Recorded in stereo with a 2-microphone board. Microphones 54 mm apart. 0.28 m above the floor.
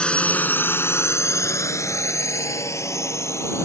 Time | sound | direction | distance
0.0 | a drone | 20° left (ahead or behind) | ?